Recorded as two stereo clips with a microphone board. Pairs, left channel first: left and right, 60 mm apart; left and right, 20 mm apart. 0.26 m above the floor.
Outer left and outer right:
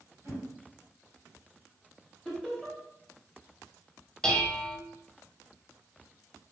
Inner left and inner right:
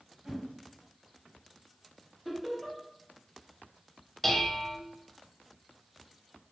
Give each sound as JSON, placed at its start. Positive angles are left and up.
{"t": 0.2, "sound": "a whoosh", "side_deg": -40, "distance_m": 1.9}
{"t": 2.2, "sound": "laughter", "side_deg": 5, "distance_m": 1.2}
{"t": 4.2, "sound": "dishes clattering", "side_deg": 15, "distance_m": 0.6}